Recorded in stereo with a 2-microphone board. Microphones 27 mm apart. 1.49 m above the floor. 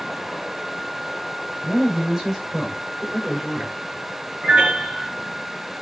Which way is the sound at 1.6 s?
30° right (ahead or behind).